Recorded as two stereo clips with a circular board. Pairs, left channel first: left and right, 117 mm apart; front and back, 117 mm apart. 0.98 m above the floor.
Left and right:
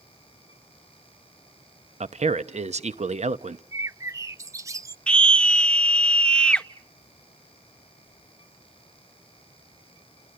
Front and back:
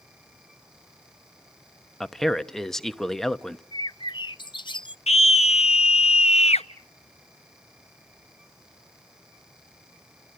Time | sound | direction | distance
2.0 | a man speaking | 85° right | 0.9 m
3.7 | a bird | 35° right | 0.6 m
5.1 | a scream | 10° left | 0.9 m